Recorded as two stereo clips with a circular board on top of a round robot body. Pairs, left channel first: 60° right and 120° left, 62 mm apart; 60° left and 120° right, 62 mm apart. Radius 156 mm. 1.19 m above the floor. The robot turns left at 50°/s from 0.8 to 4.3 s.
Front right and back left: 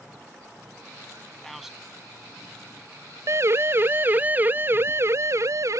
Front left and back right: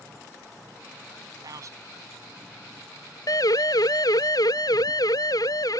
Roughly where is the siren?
Left.